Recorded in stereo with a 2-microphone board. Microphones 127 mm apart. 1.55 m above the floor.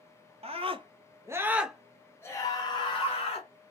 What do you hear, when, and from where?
0.4 s a scream: 55° right (ahead or behind), 0.9 m; by 3.5 s 50° left (ahead or behind), 1.2 m